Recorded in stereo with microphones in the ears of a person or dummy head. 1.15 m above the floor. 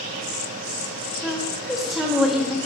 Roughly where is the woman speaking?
Centre.